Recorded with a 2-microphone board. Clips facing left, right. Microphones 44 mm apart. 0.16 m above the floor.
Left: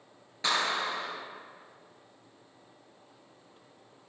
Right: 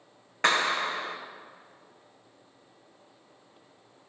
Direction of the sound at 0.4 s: 60° right (ahead or behind).